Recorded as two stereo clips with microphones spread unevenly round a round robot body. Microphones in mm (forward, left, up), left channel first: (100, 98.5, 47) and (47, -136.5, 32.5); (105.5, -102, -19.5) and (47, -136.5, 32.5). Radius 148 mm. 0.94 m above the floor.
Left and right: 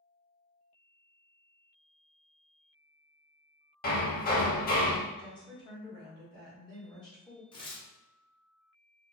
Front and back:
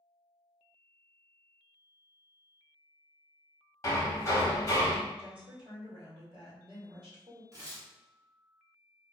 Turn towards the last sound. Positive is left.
turn(degrees=120)